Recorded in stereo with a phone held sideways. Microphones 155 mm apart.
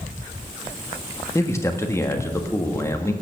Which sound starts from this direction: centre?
A man speaking, at 1.4 s.